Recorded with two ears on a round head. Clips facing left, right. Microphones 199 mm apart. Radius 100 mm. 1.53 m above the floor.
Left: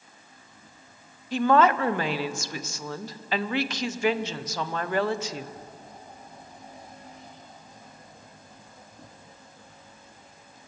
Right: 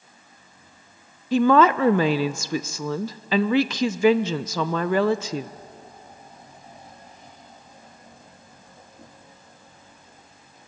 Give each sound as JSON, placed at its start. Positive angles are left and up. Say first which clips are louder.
{"t": 1.3, "sound": "a woman speaking", "louder": "right 4 dB", "side_deg": -65, "distance_m": 0.8}